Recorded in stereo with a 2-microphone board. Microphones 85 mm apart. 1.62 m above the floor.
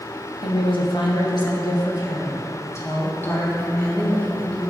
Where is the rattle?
I don't hear a rattle.